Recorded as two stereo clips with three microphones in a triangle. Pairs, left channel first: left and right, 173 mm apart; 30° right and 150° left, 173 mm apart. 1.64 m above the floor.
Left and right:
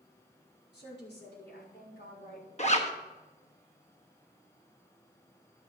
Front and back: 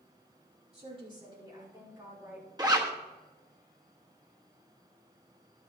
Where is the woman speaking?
95° left, 5 m; by 2.5 s 70° left, 6 m.